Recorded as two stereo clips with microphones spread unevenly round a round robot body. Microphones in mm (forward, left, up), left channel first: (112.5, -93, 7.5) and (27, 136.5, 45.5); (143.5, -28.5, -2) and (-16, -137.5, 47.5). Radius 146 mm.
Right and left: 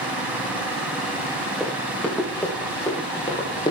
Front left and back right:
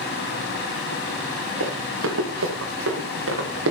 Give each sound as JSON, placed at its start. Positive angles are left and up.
{"t": 1.6, "sound": "running footsteps", "azimuth_deg": -155, "distance_m": 8.0}